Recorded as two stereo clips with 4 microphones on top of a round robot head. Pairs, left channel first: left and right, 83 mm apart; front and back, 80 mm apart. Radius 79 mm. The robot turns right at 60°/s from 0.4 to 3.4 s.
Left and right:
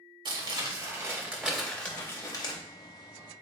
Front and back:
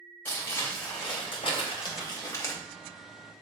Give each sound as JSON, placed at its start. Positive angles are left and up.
{"t": 0.2, "sound": "crumpling", "azimuth_deg": -70, "distance_m": 2.0}